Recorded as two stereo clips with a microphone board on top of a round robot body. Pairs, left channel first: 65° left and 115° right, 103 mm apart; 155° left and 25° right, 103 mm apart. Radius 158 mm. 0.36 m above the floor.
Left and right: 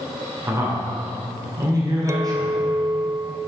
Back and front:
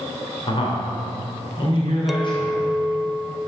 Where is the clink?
110° right, 0.5 m.